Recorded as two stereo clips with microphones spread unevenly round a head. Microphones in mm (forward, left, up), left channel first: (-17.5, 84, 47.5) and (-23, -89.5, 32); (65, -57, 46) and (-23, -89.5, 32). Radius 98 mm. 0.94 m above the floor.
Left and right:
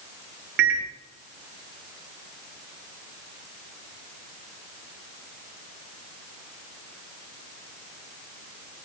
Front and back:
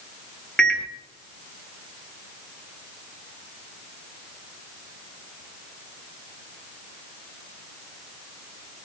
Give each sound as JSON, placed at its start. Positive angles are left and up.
{"t": 0.6, "sound": "a microwave", "azimuth_deg": -65, "distance_m": 2.5}